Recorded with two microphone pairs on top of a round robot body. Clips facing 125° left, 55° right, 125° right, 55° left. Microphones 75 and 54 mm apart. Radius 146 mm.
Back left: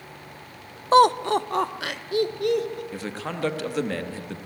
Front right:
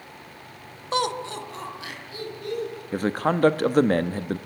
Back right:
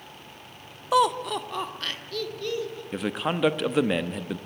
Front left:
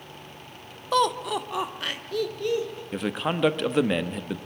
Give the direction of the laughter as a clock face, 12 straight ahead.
7 o'clock.